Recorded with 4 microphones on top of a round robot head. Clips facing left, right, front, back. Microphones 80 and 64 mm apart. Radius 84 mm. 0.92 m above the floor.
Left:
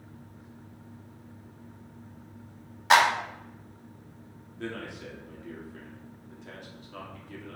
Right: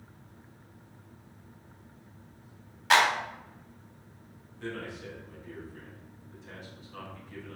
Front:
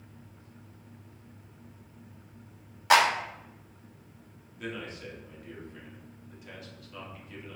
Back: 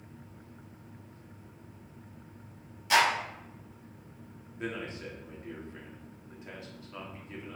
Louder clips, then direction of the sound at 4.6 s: Left 1 dB, back 1 dB; 125° left.